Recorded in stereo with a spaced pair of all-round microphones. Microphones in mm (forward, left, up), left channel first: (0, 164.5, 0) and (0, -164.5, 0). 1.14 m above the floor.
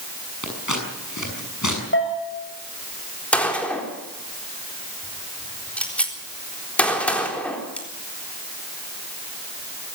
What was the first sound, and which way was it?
Scissors, 60° left (ahead or behind).